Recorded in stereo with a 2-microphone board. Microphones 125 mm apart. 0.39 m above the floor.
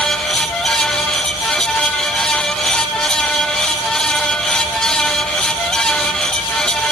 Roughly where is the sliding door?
I don't hear a sliding door.